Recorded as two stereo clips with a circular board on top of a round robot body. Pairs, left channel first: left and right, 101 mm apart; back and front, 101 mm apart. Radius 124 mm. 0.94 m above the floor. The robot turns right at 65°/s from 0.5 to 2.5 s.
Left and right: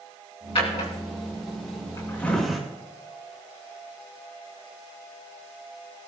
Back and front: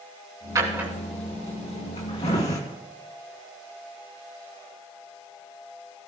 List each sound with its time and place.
0.6 s a drawer: 55° left, 3 m; by 2.6 s straight behind, 3 m